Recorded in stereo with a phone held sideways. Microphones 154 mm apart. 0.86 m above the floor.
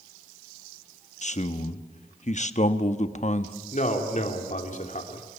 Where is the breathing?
I don't hear breathing.